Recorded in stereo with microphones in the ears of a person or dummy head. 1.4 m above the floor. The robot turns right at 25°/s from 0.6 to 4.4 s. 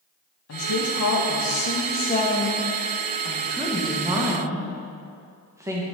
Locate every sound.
0.5 s a woman speaking: 105° left, 1.6 m; by 5.8 s 160° right, 1.6 m